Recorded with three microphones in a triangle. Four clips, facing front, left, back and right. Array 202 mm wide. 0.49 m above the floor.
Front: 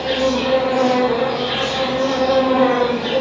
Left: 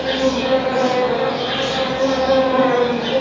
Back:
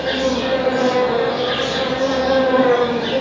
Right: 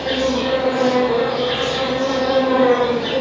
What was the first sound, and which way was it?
An insect, 105° left.